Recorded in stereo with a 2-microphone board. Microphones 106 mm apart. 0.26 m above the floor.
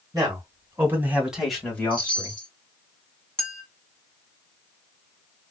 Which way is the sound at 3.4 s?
5° left (ahead or behind).